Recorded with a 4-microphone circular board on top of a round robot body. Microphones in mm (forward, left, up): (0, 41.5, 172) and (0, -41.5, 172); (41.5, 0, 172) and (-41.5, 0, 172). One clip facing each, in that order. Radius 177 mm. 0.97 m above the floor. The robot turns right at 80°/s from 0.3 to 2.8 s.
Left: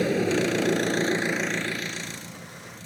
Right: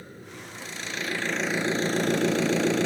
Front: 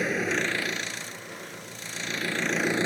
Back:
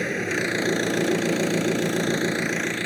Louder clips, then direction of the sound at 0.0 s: Left 20 dB, back 2 dB; 90° left.